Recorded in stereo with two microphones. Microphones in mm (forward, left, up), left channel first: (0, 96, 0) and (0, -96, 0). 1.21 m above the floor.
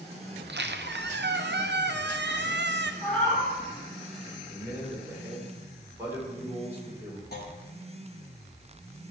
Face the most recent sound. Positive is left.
turn(degrees=55)  # may be behind; listen again after turning